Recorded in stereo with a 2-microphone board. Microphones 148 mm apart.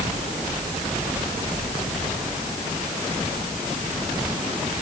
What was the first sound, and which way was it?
Only background noise.